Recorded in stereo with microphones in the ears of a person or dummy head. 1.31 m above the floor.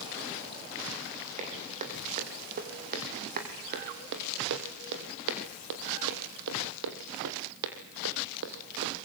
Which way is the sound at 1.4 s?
35° right (ahead or behind).